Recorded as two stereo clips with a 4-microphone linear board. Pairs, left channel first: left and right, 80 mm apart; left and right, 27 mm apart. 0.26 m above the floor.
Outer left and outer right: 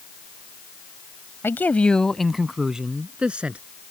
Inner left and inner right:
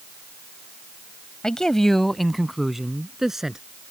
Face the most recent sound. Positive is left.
turn(degrees=-15)  # may be behind; listen again after turning